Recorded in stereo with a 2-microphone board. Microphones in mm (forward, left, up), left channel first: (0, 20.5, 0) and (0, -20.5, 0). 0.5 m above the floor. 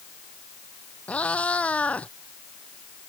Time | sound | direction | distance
1.1 | a cat meowing | 35° left (ahead or behind) | ?